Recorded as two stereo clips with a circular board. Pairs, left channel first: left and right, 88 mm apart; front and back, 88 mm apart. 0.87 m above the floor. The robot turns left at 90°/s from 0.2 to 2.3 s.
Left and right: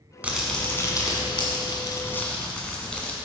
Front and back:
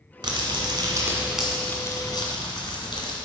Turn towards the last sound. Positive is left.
turn(degrees=15)